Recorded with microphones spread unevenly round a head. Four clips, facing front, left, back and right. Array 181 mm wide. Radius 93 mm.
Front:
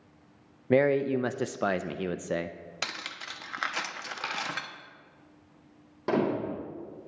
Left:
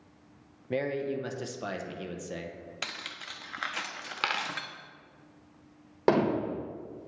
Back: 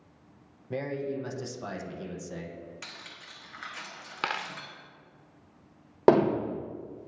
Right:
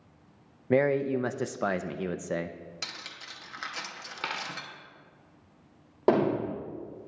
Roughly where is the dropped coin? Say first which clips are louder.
Left 3 dB, back 2 dB; behind.